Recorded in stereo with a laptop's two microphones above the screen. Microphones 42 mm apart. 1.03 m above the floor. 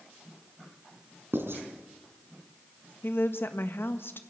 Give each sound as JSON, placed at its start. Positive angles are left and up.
{"t": 1.3, "sound": "writing", "side_deg": -65, "distance_m": 4.0}
{"t": 3.0, "sound": "a woman speaking", "side_deg": 60, "distance_m": 1.4}